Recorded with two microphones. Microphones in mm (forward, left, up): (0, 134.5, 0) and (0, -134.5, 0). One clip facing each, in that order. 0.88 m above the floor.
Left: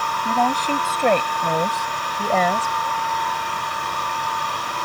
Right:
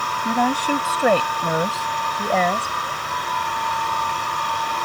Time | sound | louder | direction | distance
0.2 | a woman speaking | right 2 dB | 10° right (ahead or behind) | ?